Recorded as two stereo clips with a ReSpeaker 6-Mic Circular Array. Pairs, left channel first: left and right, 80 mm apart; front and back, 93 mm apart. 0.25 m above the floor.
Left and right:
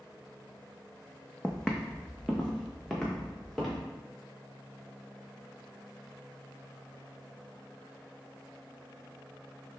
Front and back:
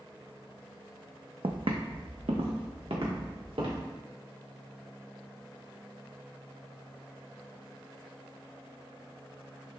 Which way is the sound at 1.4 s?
170° left.